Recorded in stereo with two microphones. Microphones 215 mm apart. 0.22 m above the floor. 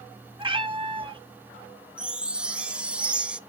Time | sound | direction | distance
0.4 | a cat meowing | 25° right (ahead or behind) | 1.4 m
2.0 | a chime | 5° right (ahead or behind) | 0.6 m